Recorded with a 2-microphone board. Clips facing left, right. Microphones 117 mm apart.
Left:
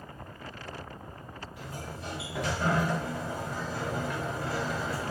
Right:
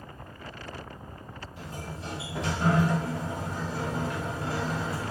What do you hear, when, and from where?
1.6 s a sliding door: 25° right (ahead or behind), 1.9 m